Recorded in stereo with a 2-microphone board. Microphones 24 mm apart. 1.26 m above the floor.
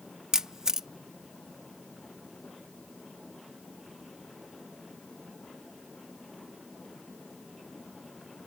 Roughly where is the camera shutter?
Right.